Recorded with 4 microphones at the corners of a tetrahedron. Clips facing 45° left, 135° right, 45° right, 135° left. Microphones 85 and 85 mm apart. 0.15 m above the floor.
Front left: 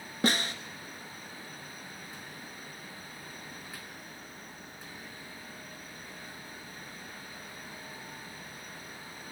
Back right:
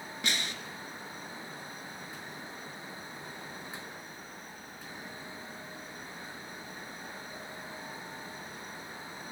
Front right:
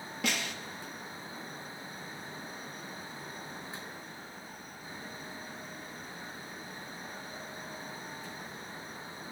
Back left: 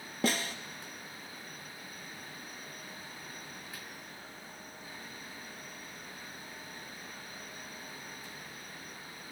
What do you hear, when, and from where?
0.2 s a snare drum: 90° left, 0.8 m